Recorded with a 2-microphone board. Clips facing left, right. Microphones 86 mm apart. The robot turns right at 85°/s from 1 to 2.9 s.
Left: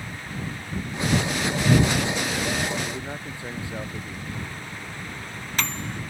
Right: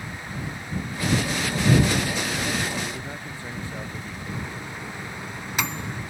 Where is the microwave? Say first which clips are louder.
Right 2 dB; 10° right (ahead or behind).